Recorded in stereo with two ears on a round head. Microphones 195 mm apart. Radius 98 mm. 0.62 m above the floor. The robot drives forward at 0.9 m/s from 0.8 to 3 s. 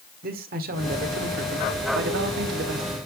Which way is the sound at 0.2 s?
45° right (ahead or behind).